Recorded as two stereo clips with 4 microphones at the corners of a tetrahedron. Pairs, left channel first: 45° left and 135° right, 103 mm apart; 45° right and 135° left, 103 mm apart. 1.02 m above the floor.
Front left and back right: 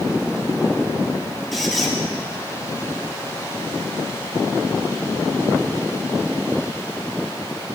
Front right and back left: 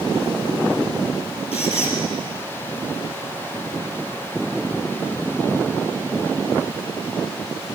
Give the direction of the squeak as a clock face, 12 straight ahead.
1 o'clock.